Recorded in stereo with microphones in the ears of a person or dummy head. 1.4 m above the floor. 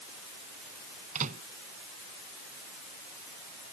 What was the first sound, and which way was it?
A microwave, 50° right (ahead or behind).